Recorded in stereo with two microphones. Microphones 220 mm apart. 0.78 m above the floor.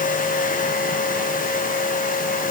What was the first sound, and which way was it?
Only background noise.